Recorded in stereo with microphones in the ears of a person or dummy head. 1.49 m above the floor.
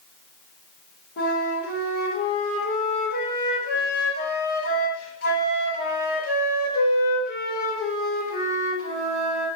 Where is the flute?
60° left (ahead or behind), 0.9 m.